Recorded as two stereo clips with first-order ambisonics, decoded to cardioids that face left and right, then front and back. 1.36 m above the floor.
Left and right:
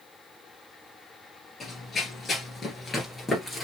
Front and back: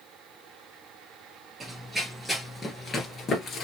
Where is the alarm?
I don't hear an alarm.